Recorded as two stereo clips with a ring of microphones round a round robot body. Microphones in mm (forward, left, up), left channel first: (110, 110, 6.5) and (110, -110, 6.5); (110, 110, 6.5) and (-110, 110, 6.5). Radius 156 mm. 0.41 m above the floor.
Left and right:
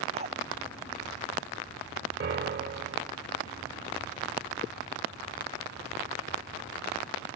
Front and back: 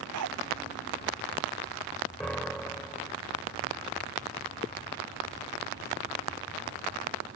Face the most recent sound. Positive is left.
turn(degrees=-85)